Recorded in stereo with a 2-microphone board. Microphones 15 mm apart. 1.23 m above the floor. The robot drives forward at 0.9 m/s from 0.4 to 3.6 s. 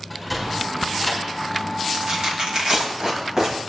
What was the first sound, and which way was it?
A sliding door, centre (ahead or behind).